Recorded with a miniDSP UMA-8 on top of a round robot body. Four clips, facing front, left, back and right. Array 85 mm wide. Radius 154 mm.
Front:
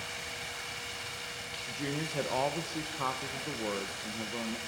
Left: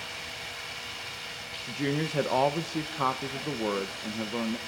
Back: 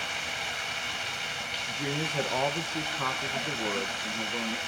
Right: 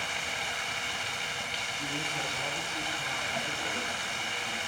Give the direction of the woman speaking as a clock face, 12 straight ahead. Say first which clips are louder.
Left 11 dB, back 2 dB; 9 o'clock.